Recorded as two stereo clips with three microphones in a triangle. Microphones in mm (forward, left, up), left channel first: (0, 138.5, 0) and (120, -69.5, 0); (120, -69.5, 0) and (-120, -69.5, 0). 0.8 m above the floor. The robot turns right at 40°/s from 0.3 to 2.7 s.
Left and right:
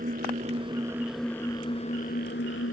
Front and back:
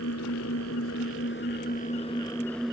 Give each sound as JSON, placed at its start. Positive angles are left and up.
{"t": 0.0, "sound": "an engine running", "azimuth_deg": -5}